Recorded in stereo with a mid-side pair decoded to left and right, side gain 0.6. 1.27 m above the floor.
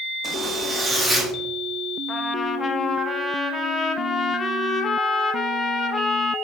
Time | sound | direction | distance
0.2 | a zipper | 20° right | 1.2 m
2.1 | a trumpet | 25° left | 0.7 m